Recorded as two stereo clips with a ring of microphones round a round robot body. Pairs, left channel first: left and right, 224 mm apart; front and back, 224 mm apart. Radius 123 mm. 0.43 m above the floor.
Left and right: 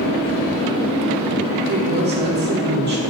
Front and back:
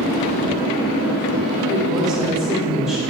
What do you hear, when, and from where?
1.7 s a woman speaking: 95° right, 1.6 m